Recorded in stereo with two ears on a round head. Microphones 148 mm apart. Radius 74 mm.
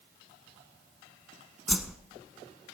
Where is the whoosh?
Centre (ahead or behind), 0.6 m.